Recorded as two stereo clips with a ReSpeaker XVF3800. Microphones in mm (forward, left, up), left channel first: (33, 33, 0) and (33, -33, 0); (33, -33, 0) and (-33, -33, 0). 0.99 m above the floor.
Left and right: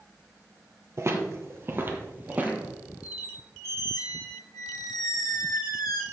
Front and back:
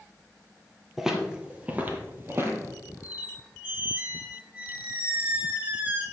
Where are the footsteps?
100° right, 1.3 m; by 2.8 s 150° right, 1.5 m.